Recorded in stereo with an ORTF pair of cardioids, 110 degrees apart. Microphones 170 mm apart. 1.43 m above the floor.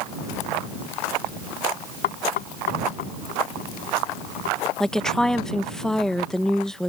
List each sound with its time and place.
2.0 s knocking: 65° left
4.8 s a woman speaking: 5° left